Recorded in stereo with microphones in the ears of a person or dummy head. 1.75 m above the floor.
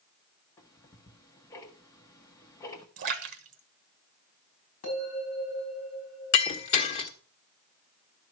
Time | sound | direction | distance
0.6 | ticking | 15° left (ahead or behind) | 1.3 m
3.0 | a splash | 40° right (ahead or behind) | 1.1 m
4.8 | a bell | 50° left (ahead or behind) | 7.5 m
6.3 | breaking glass | 35° left (ahead or behind) | 1.6 m